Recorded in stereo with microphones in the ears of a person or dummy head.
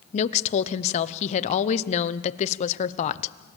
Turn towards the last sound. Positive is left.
turn(degrees=40)  # may be behind; listen again after turning